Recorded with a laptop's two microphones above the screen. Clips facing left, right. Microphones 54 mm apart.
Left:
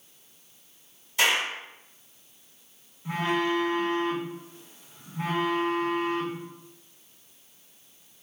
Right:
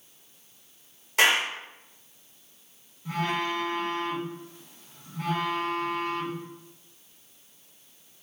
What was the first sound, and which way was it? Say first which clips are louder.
A clap: right 2 dB; 70° right (ahead or behind).